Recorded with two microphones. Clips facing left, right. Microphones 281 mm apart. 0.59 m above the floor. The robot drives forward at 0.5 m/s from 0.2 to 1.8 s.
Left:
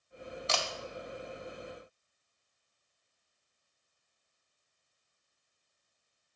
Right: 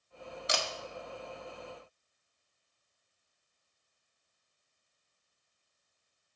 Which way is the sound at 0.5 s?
20° right (ahead or behind).